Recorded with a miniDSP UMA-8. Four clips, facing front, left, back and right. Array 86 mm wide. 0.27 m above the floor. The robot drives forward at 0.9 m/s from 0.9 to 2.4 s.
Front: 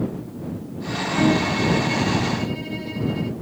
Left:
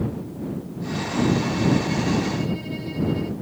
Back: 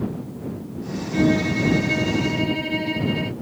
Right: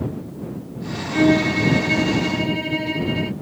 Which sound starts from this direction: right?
A violin, at 1.1 s.